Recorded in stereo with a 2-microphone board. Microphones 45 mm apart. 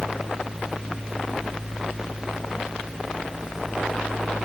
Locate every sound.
Only background noise.